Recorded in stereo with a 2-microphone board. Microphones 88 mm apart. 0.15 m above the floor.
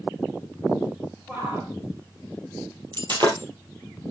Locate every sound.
1.3 s a shout: 25° right (ahead or behind), 3 m
2.9 s breaking glass: 60° right (ahead or behind), 2.5 m